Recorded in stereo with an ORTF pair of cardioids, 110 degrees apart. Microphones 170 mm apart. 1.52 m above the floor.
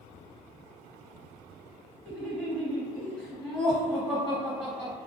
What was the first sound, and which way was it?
Laughter, 15° left.